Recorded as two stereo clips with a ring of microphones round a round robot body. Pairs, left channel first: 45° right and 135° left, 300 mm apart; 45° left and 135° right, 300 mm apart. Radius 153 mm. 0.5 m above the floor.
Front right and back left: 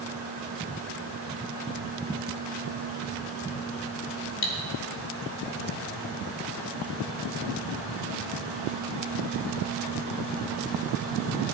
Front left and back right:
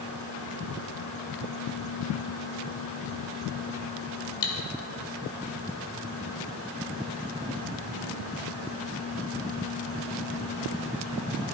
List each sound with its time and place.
4.4 s cutlery clinking: 5° left, 1.6 m